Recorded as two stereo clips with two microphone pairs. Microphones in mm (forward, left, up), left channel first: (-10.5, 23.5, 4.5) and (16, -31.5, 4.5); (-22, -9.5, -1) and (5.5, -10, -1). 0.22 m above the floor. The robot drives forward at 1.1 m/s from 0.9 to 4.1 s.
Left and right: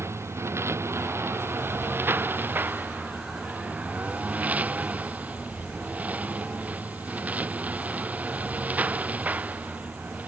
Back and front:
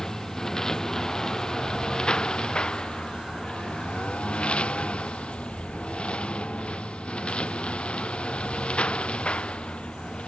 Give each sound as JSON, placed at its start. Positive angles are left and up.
{"t": 0.0, "sound": "a lawn mower", "azimuth_deg": -110}